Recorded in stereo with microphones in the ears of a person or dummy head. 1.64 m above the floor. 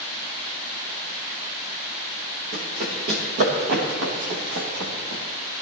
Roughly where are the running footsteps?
Right.